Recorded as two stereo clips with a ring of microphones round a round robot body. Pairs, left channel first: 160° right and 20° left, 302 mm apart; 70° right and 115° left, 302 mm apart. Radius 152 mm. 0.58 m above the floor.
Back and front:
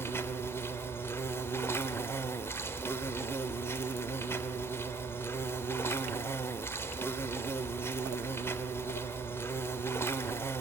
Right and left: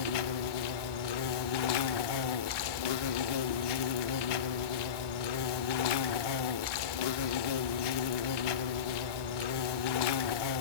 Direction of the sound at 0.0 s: 75° right.